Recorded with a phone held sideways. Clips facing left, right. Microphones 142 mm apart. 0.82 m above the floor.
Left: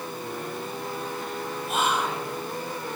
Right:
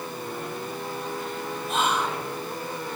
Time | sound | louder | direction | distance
1.7 | whispering | even | 5° left (ahead or behind) | 0.9 m